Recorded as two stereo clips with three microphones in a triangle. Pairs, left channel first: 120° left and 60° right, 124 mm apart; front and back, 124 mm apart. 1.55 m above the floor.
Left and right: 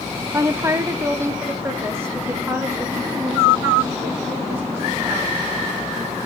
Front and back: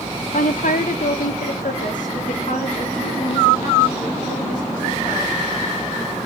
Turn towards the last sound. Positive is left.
turn(degrees=15)